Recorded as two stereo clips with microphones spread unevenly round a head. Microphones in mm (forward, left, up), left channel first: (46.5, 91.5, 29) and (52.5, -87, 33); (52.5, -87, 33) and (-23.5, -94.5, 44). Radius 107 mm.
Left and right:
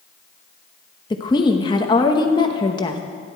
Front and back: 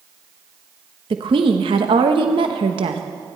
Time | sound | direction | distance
1.1 | a woman speaking | 160° left | 0.9 m